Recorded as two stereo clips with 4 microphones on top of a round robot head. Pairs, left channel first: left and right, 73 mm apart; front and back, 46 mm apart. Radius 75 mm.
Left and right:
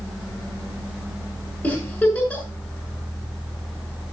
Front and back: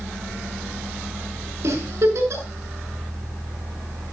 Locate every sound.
1.6 s a giggle: 165° left, 6 m